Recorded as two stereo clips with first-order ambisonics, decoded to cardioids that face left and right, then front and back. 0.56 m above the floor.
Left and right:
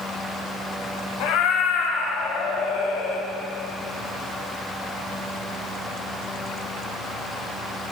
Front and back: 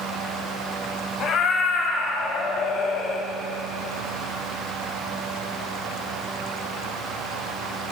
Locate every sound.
1.2 s a cat meowing: 55° left, 1.3 m